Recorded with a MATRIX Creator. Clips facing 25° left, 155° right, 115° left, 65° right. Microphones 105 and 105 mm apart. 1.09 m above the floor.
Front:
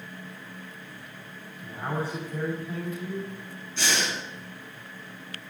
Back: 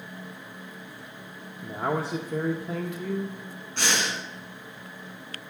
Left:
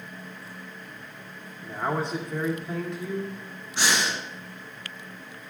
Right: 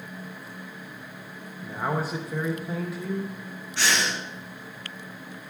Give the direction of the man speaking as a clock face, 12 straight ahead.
5 o'clock.